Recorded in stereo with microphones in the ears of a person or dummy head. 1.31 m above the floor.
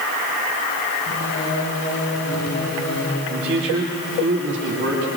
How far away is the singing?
About 7.5 m.